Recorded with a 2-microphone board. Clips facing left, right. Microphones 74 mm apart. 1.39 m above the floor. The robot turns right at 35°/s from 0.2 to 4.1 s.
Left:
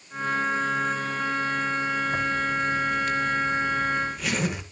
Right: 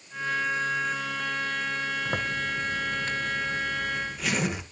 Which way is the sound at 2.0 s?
70° right.